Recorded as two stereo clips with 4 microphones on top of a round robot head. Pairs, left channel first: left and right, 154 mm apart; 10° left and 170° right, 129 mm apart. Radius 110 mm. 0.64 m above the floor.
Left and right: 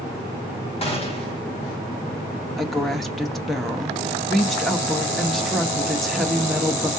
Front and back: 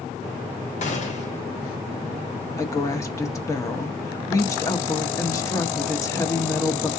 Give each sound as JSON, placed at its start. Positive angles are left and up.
{"t": 0.8, "sound": "a gunshot", "azimuth_deg": 40, "distance_m": 1.8}
{"t": 2.6, "sound": "a woman speaking", "azimuth_deg": 5, "distance_m": 0.9}